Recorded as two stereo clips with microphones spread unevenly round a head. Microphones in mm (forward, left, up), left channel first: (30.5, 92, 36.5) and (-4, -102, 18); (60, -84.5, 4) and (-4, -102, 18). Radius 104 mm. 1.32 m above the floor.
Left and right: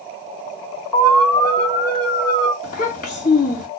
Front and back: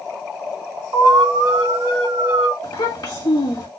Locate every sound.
0.9 s an alarm: 170° left, 2.0 m
2.6 s a child speaking: 30° left, 1.6 m